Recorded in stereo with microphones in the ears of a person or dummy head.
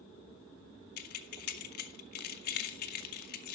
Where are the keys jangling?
50° left (ahead or behind), 0.5 m.